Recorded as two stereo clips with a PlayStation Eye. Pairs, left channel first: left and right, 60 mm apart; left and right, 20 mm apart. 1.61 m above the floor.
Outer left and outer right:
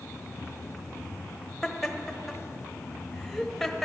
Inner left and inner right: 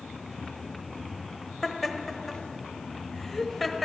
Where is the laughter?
Centre (ahead or behind), 1.0 m.